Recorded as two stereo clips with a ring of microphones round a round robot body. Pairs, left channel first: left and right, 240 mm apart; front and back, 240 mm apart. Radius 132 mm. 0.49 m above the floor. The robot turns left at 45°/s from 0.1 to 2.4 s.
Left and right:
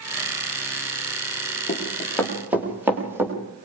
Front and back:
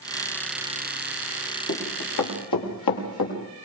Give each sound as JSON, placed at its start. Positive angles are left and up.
{"t": 1.7, "sound": "running footsteps", "azimuth_deg": 30, "distance_m": 7.0}